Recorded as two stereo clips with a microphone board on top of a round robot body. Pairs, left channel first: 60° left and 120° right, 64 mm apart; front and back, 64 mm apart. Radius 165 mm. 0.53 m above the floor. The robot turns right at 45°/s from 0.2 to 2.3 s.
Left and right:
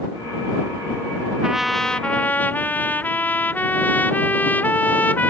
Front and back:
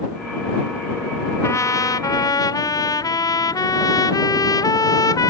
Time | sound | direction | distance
1.4 | a trumpet | 40° right | ?